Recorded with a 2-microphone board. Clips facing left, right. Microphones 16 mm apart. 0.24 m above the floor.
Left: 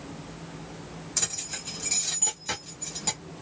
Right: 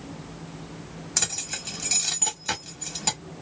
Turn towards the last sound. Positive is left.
turn(degrees=-35)  # may be behind; listen again after turning